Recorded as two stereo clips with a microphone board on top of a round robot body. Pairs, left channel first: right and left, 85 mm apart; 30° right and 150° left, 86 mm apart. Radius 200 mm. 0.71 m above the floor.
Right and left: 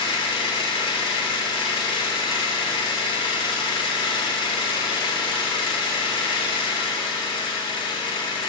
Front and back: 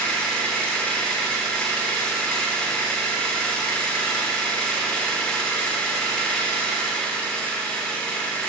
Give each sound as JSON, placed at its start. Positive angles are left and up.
{"t": 0.0, "sound": "an engine running", "azimuth_deg": -110, "distance_m": 0.9}